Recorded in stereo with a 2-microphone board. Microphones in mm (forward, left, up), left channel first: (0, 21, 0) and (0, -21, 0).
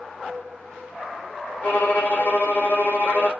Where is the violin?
45° left (ahead or behind), 1.1 m.